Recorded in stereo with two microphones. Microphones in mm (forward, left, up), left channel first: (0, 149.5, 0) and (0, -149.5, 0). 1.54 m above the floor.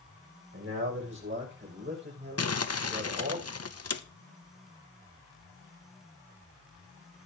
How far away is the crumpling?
About 0.8 m.